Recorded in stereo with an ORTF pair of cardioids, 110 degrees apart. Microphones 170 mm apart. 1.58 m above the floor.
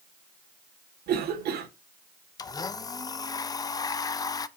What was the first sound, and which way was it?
A cough, 65° right.